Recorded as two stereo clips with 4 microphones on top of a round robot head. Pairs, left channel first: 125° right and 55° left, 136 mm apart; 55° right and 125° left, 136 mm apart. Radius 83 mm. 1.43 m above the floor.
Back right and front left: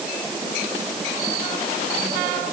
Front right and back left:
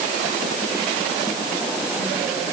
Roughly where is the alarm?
I don't hear an alarm.